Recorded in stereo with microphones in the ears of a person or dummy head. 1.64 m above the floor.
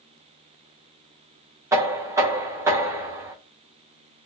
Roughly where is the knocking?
Centre.